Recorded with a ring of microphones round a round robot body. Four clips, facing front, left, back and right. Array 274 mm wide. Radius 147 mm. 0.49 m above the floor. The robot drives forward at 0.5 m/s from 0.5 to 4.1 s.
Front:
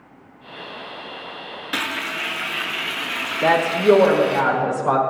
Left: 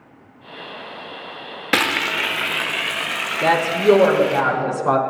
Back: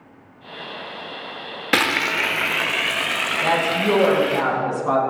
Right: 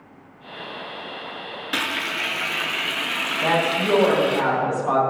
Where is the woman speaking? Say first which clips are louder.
Left 6 dB, front 5 dB; 85° left, 5.5 m; by 5.0 s 90° left, 5.5 m.